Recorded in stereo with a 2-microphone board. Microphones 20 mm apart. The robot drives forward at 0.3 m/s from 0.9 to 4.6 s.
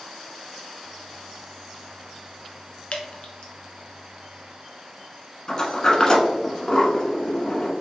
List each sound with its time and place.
2.9 s dripping: 60° left (ahead or behind), 0.9 m; by 3.5 s 55° left (ahead or behind), 1.0 m
5.5 s a sliding door: 30° left (ahead or behind), 1.0 m